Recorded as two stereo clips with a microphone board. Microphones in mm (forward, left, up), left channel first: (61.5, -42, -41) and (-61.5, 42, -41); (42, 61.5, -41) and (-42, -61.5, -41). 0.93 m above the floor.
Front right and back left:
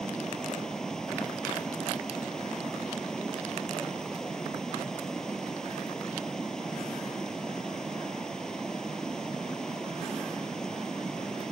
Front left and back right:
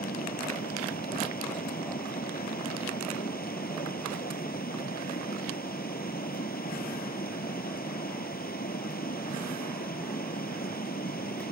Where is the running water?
50° left.